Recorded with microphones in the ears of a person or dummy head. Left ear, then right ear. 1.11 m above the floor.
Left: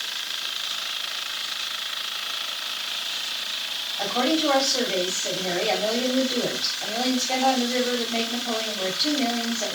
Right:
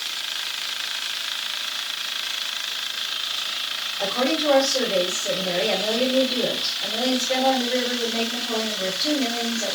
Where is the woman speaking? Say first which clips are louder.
Even; 45° left (ahead or behind), 3.5 m.